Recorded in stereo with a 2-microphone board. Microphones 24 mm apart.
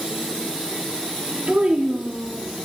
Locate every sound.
1.5 s a child speaking: 40° right (ahead or behind), 2.5 m